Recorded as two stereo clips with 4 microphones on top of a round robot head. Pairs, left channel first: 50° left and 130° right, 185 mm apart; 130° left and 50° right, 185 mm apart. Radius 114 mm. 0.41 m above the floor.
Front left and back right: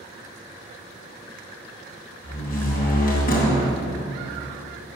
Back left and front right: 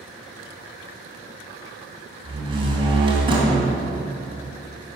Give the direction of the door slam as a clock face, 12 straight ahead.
12 o'clock.